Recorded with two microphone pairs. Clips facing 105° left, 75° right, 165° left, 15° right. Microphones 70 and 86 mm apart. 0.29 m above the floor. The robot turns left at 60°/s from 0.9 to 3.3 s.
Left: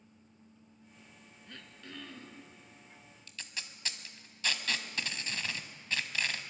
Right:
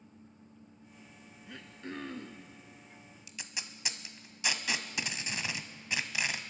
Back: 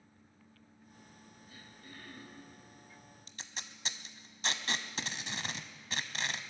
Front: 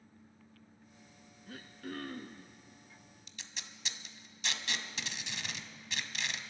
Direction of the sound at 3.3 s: 150° right.